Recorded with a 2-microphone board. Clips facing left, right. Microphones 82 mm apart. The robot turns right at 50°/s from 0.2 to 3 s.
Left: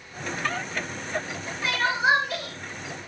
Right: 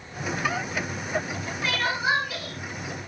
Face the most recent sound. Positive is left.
turn(degrees=85)